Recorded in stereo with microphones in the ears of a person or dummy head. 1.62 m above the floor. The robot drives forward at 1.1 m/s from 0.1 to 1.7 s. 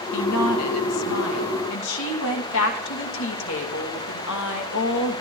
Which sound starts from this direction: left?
A woman speaking, at 0.1 s.